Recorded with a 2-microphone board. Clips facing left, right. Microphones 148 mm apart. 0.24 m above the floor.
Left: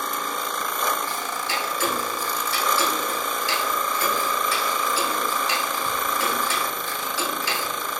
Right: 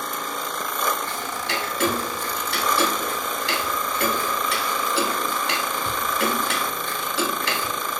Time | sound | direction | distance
1.1 | ticking | 65° right (ahead or behind) | 0.7 m